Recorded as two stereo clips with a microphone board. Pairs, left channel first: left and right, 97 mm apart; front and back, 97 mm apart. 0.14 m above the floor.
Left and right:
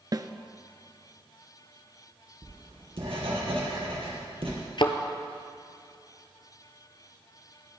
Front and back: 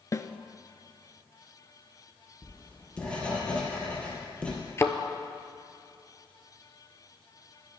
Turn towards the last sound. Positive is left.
turn(degrees=60)